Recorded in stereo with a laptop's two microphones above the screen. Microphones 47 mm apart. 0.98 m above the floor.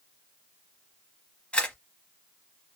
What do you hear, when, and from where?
1.5 s a camera shutter: 25° left (ahead or behind), 0.9 m